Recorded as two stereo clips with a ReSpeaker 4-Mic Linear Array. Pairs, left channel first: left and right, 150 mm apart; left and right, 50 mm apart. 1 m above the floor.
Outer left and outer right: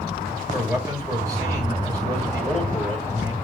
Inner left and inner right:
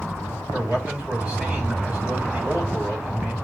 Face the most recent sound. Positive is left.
turn(degrees=-20)  # may be behind; listen again after turning